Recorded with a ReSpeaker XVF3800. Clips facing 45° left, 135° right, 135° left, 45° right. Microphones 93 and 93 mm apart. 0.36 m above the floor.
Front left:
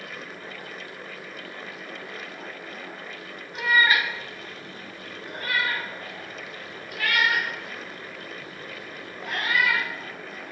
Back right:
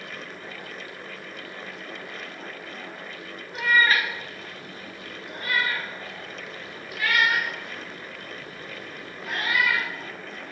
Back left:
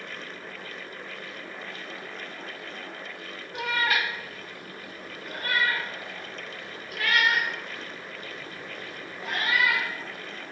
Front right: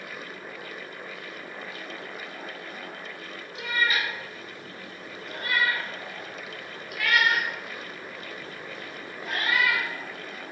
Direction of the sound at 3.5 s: 135° left.